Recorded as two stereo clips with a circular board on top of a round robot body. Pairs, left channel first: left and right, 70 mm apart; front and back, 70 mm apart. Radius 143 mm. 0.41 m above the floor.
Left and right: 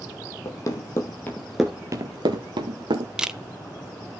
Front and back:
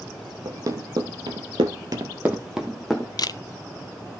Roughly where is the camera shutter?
Ahead.